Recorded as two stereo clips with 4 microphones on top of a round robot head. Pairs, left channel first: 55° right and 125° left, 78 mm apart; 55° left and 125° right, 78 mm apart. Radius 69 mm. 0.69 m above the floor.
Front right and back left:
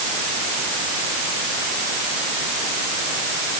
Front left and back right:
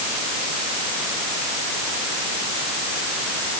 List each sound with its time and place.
Only background noise.